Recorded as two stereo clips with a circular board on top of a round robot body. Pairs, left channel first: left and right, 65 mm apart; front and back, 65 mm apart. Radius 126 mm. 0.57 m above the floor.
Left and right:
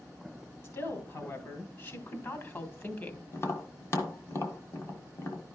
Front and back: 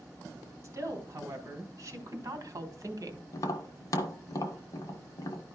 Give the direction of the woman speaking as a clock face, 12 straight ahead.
8 o'clock.